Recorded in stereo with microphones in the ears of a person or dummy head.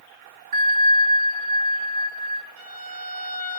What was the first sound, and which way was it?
A bell, 50° right (ahead or behind).